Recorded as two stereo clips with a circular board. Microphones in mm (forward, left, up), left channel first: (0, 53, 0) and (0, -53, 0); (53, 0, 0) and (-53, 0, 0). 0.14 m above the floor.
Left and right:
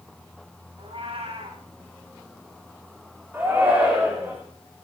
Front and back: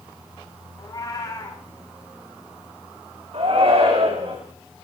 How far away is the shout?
About 10 m.